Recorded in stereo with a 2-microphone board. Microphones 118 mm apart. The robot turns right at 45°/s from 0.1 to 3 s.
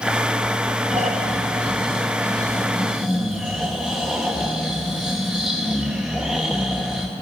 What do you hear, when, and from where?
0.9 s snoring: 95° right, 2.5 m; by 7.1 s straight ahead, 2.5 m